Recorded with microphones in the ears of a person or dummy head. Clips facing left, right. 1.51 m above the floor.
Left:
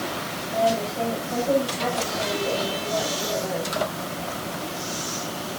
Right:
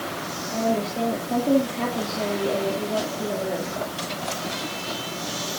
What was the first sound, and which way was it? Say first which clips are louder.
A woman speaking: left 1 dB; 55° right (ahead or behind).